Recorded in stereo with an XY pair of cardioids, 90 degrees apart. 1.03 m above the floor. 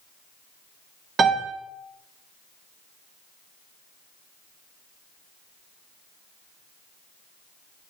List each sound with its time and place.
1.2 s a piano: 60° right, 1.9 m